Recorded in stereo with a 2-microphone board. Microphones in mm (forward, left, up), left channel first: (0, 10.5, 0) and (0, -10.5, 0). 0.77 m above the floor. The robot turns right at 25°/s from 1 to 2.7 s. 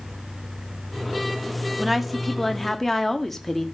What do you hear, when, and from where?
1.8 s a woman speaking: 15° right (ahead or behind), 1.4 m; by 3.6 s 5° left (ahead or behind), 1.4 m